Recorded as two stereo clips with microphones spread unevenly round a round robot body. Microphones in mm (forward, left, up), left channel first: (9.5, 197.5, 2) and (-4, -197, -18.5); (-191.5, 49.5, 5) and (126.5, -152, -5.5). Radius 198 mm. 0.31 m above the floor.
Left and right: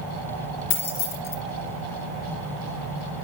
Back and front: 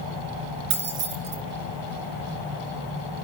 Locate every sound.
0.7 s keys jangling: 20° left, 2.5 m